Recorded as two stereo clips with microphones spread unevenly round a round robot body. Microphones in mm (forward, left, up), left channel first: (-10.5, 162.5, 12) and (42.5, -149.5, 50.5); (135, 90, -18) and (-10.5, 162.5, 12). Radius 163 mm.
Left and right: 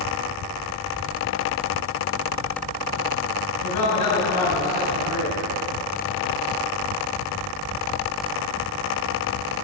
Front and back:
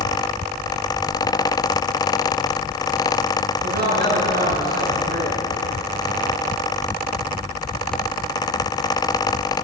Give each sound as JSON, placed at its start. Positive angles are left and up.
{"t": 3.6, "sound": "a man speaking", "azimuth_deg": 140, "distance_m": 5.0}